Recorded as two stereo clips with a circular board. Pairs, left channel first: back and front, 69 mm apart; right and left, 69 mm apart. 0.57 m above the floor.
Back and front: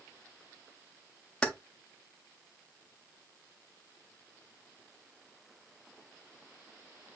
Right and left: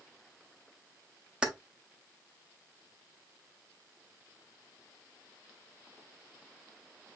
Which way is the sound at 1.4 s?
135° left.